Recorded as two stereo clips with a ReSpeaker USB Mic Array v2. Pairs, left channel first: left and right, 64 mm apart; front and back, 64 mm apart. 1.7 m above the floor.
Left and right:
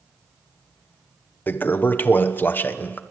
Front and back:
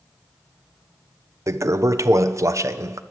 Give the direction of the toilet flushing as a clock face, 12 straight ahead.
7 o'clock.